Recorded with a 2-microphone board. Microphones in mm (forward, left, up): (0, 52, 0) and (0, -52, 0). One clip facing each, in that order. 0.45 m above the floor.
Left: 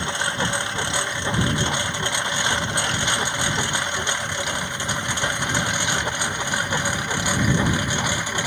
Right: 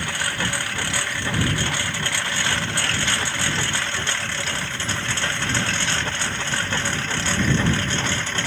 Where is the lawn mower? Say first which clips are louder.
Left 2 dB; 20° left (ahead or behind); by 8.5 s 15° left (ahead or behind).